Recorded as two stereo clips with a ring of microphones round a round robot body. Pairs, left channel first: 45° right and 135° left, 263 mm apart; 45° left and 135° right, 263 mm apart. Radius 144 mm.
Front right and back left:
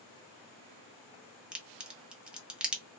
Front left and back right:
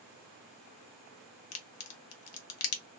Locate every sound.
1.5 s a crack: 50° left, 0.7 m